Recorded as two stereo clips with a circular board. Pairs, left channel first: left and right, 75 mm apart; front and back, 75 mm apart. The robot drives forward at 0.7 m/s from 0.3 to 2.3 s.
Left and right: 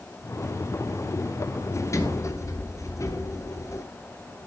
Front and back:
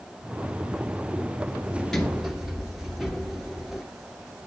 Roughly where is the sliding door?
Left.